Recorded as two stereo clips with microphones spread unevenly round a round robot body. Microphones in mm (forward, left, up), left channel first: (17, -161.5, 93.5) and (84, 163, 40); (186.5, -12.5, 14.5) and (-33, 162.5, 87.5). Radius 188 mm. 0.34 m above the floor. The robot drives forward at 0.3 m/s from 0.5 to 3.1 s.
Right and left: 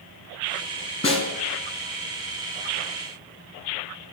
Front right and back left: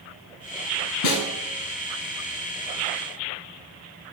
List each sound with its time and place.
1.0 s a snare drum: 30° right, 2 m